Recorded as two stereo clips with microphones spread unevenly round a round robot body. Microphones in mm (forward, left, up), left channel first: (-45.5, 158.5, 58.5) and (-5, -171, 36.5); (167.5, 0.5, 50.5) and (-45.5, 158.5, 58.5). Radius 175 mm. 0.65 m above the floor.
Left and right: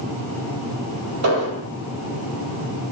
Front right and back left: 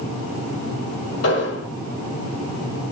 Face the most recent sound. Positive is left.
turn(degrees=-55)